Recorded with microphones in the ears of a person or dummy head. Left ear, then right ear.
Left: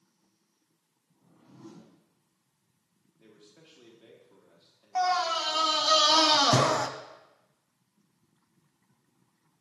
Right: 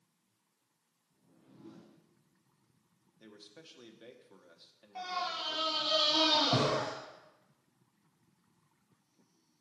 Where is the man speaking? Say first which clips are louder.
Right 2 dB; 45° right (ahead or behind), 1.1 m.